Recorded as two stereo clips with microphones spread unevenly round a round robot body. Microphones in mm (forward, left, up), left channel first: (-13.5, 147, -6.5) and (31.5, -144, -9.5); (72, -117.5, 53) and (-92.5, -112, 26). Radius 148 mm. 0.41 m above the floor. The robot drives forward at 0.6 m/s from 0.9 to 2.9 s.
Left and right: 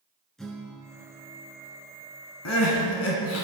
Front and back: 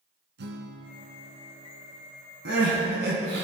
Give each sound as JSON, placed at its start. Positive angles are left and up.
{"t": 0.4, "sound": "a guitar", "azimuth_deg": -175, "distance_m": 1.6}
{"t": 2.5, "sound": "crying", "azimuth_deg": 140, "distance_m": 2.0}